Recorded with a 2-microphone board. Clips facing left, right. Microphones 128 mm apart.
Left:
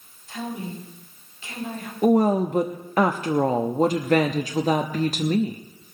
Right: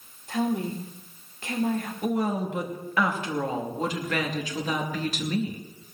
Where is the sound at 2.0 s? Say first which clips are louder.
Left 10 dB; 45° left (ahead or behind), 0.7 m.